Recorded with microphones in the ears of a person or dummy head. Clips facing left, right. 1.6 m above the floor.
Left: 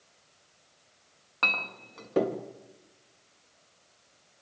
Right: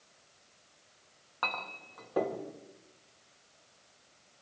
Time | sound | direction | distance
1.4 | a clink | 40° left (ahead or behind) | 1.6 m